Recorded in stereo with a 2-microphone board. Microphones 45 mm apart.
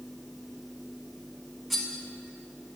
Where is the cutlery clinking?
Centre (ahead or behind), 1.2 m.